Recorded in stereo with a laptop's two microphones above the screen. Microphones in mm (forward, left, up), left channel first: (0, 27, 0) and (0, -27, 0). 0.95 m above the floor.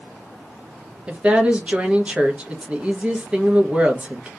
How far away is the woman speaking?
About 0.7 m.